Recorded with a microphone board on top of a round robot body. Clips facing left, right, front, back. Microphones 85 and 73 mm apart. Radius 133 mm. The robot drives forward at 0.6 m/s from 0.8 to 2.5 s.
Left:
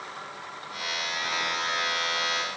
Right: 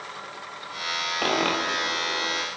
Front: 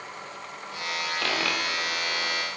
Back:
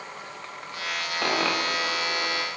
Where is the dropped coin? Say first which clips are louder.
Right 7 dB, back 5 dB; 105° right; by 2.5 s 110° right.